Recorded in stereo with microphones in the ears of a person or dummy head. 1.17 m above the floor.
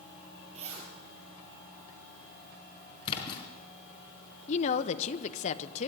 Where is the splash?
30° left (ahead or behind), 4 m.